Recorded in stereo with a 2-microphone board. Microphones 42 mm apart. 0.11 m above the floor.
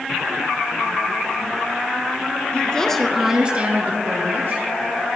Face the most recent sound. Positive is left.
turn(degrees=-60)  # may be behind; listen again after turning